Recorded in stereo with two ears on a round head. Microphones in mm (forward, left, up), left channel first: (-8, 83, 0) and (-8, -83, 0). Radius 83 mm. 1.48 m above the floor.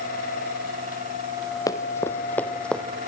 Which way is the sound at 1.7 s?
20° left (ahead or behind).